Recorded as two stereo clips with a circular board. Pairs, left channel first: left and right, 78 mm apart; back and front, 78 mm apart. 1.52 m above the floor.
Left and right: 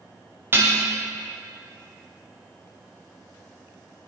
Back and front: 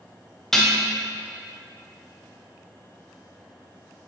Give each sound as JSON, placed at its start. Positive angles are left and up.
{"t": 0.5, "sound": "dishes clattering", "azimuth_deg": -100, "distance_m": 0.6}